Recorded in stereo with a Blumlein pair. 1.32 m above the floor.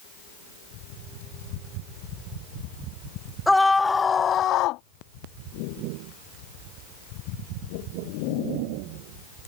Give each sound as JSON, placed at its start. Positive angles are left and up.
{"t": 3.5, "sound": "a scream", "azimuth_deg": 5}